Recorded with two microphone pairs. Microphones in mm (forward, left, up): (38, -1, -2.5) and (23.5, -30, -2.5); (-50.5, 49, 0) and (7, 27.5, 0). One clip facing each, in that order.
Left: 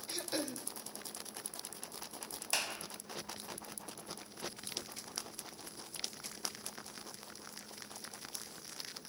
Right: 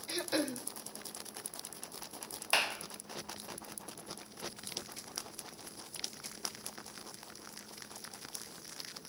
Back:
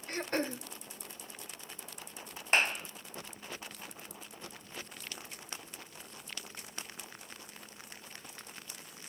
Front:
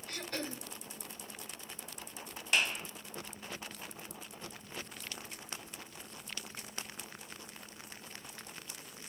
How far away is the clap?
About 1.5 m.